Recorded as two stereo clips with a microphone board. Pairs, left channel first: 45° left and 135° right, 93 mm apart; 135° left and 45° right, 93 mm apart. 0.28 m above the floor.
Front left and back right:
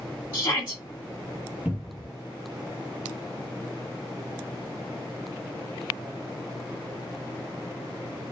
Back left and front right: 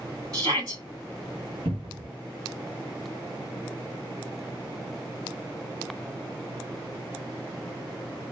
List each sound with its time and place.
0.3 s a shout: 10° right, 2.5 m
1.6 s a cupboard door: 55° right, 1.2 m